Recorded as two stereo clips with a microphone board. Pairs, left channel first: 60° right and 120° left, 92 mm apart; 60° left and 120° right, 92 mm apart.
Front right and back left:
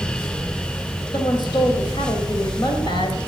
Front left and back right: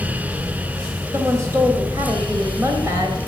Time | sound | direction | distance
1.1 | a woman speaking | 70° right | 2.5 m